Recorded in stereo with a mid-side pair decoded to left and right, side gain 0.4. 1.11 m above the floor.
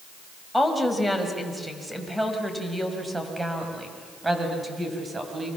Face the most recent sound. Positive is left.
turn(degrees=-30)